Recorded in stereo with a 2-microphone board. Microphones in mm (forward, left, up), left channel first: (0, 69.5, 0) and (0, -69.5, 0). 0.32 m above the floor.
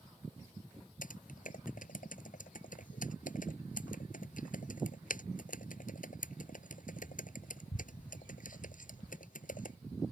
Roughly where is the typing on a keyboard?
Left.